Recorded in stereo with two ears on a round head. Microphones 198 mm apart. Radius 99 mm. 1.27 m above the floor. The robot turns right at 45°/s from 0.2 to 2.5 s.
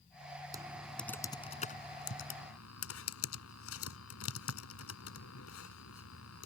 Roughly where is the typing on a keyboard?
Centre.